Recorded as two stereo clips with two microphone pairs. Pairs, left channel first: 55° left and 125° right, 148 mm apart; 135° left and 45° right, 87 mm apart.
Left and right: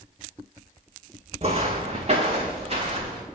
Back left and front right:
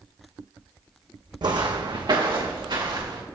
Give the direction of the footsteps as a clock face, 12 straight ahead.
3 o'clock.